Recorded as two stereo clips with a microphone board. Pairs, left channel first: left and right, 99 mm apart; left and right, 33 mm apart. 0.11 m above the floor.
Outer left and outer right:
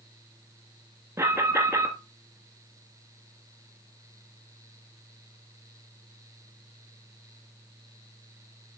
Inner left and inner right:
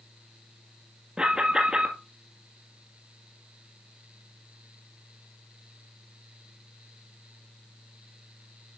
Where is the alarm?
25° right (ahead or behind), 1.9 m.